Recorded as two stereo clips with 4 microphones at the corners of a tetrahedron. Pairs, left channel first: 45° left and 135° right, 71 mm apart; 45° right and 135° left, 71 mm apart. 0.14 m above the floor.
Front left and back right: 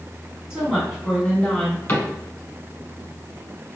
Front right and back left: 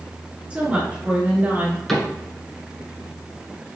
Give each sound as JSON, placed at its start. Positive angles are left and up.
{"t": 0.5, "sound": "a woman speaking", "azimuth_deg": 170, "distance_m": 1.7}
{"t": 1.9, "sound": "a cupboard door", "azimuth_deg": 40, "distance_m": 1.1}